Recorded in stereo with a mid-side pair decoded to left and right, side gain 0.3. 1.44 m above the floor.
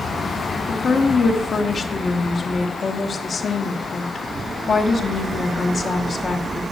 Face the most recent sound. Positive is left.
turn(degrees=60)